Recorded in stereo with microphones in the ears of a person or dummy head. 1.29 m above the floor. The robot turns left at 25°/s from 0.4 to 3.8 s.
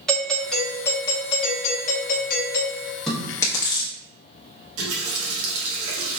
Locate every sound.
0.1 s a doorbell: straight behind, 0.7 m; by 3.0 s 115° left, 0.7 m
3.1 s chewing: centre (ahead or behind), 0.7 m; by 3.9 s 20° left (ahead or behind), 0.7 m
4.8 s a running tap: 70° right (ahead or behind), 1.2 m